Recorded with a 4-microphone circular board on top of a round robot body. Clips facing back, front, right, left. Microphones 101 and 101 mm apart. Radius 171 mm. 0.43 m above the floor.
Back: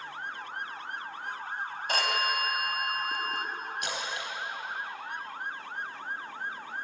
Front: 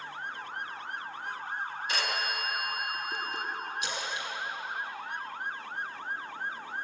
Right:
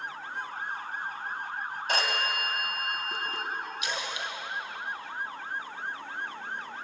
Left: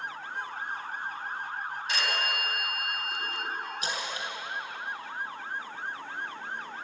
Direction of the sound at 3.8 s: 145° left.